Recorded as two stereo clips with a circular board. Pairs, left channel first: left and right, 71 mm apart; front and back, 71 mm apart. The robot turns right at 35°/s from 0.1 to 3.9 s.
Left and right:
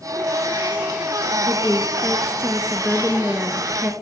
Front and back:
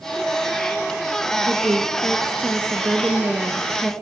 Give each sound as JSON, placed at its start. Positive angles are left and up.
{"t": 1.5, "sound": "a woman speaking", "azimuth_deg": 175, "distance_m": 1.4}